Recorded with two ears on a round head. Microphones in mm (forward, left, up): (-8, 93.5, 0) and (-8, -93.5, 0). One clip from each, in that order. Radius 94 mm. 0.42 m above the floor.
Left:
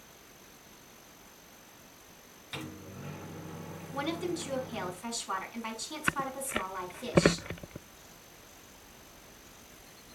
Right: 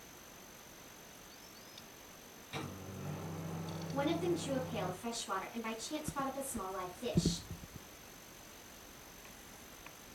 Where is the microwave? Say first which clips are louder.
Left 3 dB; 45° left (ahead or behind), 4 m.